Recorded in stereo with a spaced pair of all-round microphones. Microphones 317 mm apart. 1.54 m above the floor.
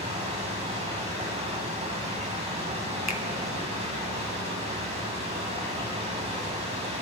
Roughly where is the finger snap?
Left.